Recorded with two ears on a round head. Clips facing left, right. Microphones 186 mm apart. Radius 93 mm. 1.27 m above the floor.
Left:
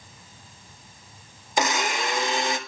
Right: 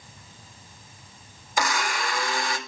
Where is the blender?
20° left (ahead or behind), 1.8 m.